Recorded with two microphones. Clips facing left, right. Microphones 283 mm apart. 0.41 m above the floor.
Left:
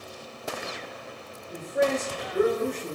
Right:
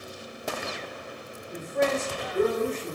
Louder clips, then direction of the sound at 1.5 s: Left 1 dB; 10° left (ahead or behind).